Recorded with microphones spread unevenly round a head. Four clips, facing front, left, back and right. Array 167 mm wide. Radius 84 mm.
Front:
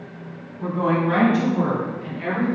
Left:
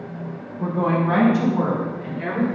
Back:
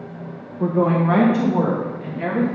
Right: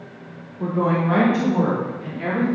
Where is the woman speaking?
165° right, 2 m; by 2.5 s 150° right, 3.5 m.